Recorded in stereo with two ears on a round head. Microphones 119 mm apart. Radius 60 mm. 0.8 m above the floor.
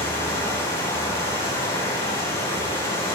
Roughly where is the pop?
No pop in this recording.